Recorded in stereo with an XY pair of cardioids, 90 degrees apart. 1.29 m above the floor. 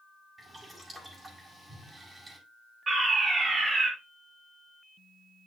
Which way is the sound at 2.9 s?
40° right.